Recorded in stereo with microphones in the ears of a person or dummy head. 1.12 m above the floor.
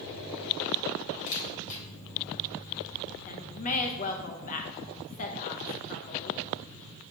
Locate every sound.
1.3 s a camera shutter: 50° left (ahead or behind), 3 m
3.2 s a woman speaking: 40° left (ahead or behind), 0.7 m